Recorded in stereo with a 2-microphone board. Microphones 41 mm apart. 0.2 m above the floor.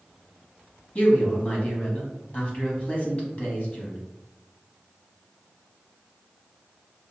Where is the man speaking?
30° left (ahead or behind), 1.1 m.